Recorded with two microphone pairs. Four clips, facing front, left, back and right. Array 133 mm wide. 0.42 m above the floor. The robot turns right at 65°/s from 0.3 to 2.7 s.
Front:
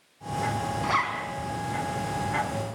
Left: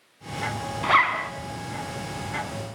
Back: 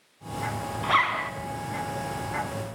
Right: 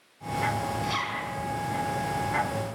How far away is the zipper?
About 2 m.